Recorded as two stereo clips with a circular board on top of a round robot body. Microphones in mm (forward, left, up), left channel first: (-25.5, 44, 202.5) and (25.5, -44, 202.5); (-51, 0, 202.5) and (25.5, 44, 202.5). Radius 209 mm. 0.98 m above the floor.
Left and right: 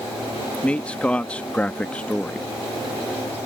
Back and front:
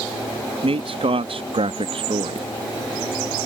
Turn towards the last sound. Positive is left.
turn(degrees=40)